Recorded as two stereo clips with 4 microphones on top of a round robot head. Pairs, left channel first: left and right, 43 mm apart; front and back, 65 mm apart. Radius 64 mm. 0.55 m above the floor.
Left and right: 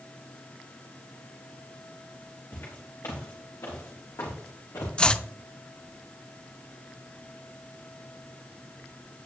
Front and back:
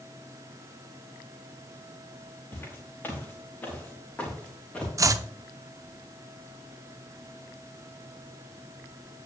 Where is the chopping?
155° left, 0.7 m.